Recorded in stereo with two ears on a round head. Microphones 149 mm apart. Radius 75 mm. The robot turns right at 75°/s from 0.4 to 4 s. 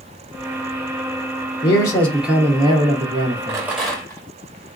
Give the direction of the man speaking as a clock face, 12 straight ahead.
7 o'clock.